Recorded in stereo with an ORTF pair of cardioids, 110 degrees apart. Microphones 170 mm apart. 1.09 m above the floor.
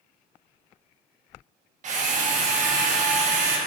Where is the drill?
45° right, 1.1 m.